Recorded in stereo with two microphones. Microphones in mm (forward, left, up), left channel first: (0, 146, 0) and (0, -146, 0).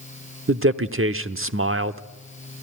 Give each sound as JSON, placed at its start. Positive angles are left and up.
{"t": 0.5, "sound": "a man speaking", "side_deg": -45, "distance_m": 1.0}